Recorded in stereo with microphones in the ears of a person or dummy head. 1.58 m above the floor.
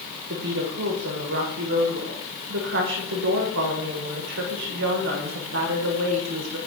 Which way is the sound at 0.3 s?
65° right (ahead or behind).